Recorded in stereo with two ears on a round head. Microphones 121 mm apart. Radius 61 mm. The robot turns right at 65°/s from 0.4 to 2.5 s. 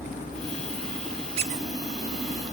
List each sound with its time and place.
1.4 s a squeak: 45° right (ahead or behind), 1.0 m; by 1.7 s 65° right (ahead or behind), 1.0 m